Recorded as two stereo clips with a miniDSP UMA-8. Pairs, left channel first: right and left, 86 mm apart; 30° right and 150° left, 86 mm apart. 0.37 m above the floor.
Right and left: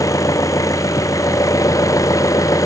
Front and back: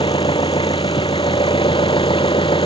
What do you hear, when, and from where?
0.0 s an engine running: 40° right